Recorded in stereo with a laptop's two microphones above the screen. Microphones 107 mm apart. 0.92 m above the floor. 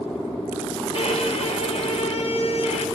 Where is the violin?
65° left (ahead or behind), 0.6 m.